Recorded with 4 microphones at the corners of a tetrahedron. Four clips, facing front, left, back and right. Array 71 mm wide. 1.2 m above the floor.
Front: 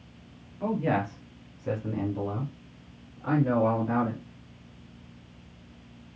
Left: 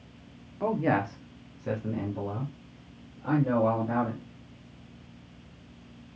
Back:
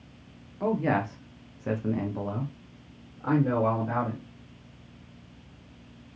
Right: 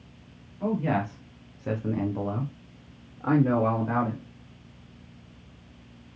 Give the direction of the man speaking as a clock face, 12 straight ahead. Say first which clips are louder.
Left 1 dB, back 1 dB; 8 o'clock.